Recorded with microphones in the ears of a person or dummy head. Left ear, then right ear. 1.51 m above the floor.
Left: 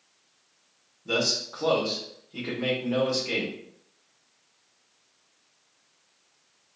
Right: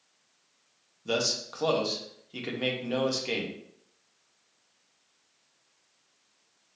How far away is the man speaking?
About 0.9 m.